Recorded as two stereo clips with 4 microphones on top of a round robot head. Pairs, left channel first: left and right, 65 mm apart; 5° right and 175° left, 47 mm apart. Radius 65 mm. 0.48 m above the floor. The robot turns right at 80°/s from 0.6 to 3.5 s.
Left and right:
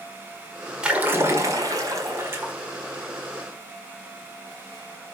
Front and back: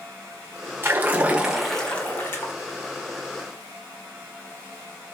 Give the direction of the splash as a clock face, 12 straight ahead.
5 o'clock.